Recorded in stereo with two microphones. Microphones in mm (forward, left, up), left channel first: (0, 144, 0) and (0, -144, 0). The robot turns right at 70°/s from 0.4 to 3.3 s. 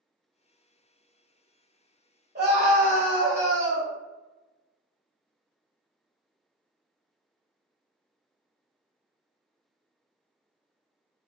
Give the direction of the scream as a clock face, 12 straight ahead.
3 o'clock.